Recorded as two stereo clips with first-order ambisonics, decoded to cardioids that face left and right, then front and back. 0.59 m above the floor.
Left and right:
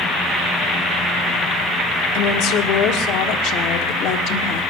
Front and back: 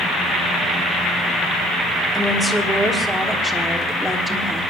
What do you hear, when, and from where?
2.1 s a woman speaking: 95° left, 1.3 m